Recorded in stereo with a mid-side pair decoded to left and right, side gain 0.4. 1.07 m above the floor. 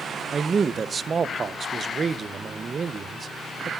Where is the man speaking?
40° right, 0.8 m.